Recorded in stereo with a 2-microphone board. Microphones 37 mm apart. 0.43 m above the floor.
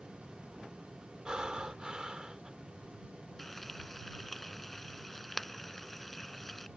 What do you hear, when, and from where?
1.2 s breathing: 25° right (ahead or behind)
3.4 s frying: 5° left (ahead or behind)